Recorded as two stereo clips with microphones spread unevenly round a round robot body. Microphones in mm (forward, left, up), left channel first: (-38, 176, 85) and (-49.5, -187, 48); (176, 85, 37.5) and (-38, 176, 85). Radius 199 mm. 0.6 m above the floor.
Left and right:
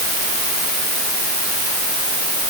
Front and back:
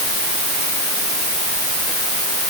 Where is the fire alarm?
I don't hear a fire alarm.